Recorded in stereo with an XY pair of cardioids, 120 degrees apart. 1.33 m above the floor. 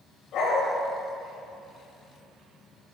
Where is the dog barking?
65° left, 3 m.